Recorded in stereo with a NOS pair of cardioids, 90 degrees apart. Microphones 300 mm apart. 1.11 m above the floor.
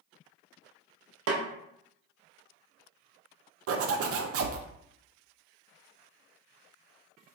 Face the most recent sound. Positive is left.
turn(degrees=-50)